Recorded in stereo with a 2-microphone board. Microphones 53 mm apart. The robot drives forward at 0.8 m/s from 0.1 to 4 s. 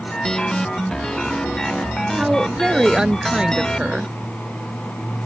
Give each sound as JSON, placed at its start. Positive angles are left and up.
{"t": 2.2, "sound": "a woman speaking", "side_deg": -15}